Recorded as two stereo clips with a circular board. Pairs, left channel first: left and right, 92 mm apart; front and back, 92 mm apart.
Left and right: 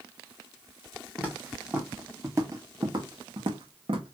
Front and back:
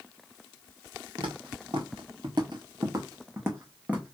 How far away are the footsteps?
About 1.6 m.